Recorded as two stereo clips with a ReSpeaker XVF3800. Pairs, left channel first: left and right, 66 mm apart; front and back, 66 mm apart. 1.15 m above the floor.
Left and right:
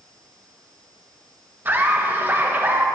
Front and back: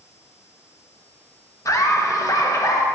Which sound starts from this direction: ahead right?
Laughter, at 1.6 s.